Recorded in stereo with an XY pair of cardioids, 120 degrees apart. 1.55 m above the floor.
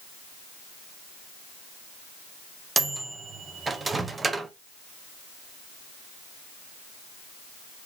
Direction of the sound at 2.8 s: 20° right.